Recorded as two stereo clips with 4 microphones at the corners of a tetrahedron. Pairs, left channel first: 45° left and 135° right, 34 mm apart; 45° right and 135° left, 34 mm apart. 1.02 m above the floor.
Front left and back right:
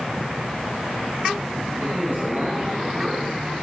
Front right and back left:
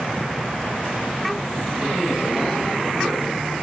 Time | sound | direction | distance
1.8 | a man speaking | 140° right | 8 m